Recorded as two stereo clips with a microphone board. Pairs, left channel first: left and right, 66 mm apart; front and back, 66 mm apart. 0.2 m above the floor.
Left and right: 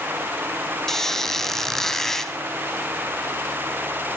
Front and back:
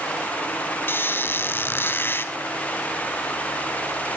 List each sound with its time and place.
0.9 s a squeak: 10° left, 0.9 m